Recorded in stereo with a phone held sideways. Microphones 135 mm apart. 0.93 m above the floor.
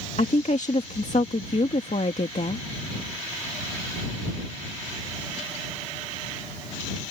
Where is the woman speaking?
60° left (ahead or behind).